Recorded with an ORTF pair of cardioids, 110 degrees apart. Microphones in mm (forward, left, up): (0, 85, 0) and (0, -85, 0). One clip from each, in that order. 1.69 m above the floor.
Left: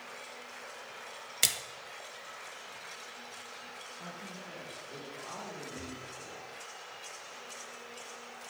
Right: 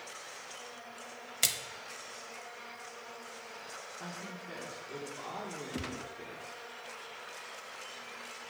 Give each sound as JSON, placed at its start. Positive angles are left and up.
{"t": 1.4, "sound": "a splash", "azimuth_deg": 15, "distance_m": 0.7}
{"t": 4.0, "sound": "a woman speaking", "azimuth_deg": -15, "distance_m": 1.9}
{"t": 5.7, "sound": "a gunshot", "azimuth_deg": -50, "distance_m": 0.6}